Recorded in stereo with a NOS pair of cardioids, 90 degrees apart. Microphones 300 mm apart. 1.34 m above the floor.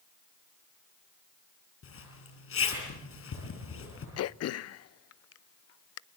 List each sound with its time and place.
1.8 s a zipper: 50° left, 9.5 m
4.2 s throat clearing: 55° left, 0.6 m